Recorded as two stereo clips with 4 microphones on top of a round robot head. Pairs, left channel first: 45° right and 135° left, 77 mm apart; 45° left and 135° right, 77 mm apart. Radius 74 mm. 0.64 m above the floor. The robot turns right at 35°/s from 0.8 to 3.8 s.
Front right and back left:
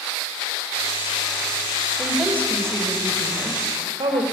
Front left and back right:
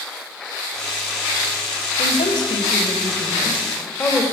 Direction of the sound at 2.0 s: 55° left.